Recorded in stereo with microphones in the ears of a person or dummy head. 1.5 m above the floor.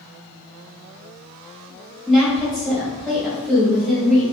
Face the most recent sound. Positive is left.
turn(degrees=0)  # may be behind; listen again after turning